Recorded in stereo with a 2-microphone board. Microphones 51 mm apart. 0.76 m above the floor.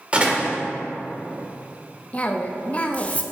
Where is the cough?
30° left (ahead or behind), 0.8 m.